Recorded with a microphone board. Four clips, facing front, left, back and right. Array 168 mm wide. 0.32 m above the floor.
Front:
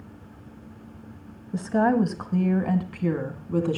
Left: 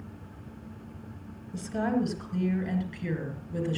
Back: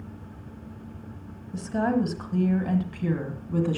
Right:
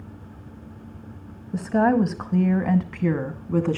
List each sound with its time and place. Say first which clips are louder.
1.5 s a woman speaking: right 9 dB, front 4 dB; 60° right, 2.0 m; by 3.8 s 80° right, 3 m